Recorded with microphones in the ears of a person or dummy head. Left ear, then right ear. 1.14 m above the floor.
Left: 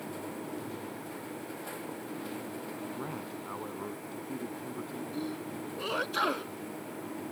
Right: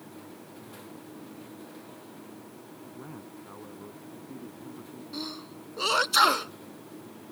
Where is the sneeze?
50° right (ahead or behind).